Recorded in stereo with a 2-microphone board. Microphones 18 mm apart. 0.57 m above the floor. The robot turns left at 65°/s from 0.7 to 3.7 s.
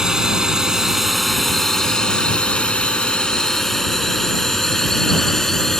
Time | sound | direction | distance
0.0 | a drone | 30° right (ahead or behind) | ?